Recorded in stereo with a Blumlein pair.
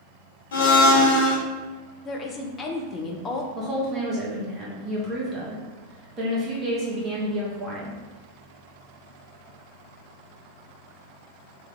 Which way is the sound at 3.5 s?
15° right.